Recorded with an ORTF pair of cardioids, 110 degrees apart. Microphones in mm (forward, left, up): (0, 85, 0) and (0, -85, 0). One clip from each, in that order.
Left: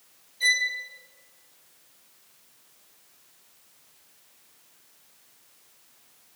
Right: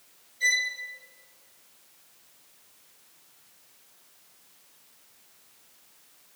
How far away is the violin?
About 3.5 m.